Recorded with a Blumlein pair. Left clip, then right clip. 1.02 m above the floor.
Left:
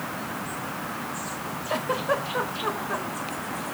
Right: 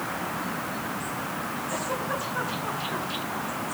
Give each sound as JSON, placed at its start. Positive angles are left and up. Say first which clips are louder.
{"t": 1.7, "sound": "a giggle", "louder": "left 6 dB", "azimuth_deg": 55, "distance_m": 3.5}